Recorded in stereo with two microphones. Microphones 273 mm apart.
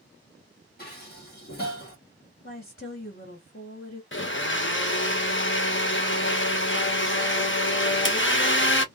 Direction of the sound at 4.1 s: 50° left (ahead or behind).